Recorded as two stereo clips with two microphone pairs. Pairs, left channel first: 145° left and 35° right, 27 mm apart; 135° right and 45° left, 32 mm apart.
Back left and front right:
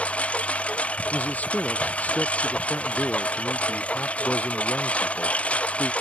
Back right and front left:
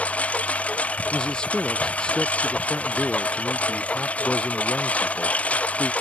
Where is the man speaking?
165° left.